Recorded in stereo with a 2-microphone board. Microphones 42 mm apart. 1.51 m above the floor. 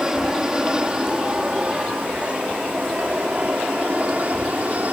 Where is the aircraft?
15° right (ahead or behind); by 4.9 s 40° right (ahead or behind).